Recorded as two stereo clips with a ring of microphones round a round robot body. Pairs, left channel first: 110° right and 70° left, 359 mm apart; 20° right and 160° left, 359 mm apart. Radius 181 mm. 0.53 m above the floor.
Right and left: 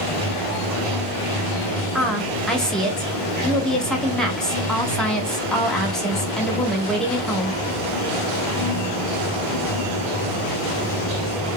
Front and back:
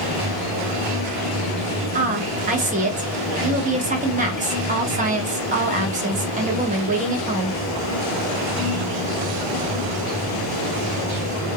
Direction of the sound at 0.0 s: 35° left.